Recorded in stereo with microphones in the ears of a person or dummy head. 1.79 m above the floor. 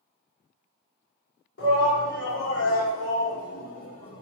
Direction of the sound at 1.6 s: 75° left (ahead or behind).